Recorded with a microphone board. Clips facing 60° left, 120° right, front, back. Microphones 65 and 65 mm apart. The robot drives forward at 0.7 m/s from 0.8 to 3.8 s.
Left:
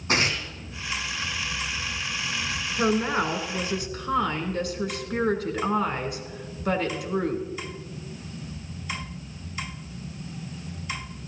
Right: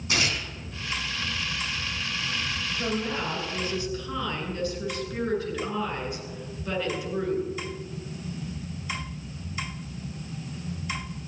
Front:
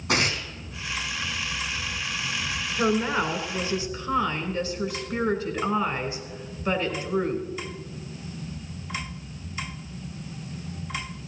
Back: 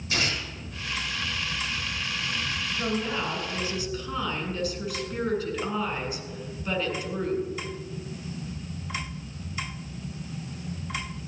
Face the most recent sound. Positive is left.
turn(degrees=55)